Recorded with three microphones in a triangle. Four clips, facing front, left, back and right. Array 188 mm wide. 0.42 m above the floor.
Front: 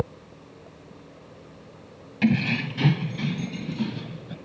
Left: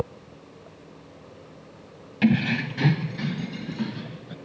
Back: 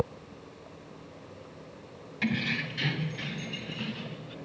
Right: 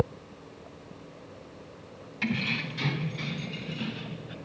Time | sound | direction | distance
2.2 | keys jangling | 55° left | 1.5 m